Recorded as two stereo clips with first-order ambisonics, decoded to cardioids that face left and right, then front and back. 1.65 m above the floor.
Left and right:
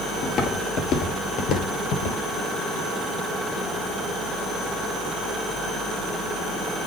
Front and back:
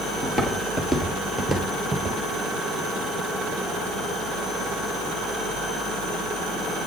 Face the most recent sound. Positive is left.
turn(degrees=100)